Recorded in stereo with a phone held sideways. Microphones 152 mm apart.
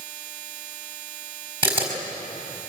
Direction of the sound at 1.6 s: 35° right (ahead or behind).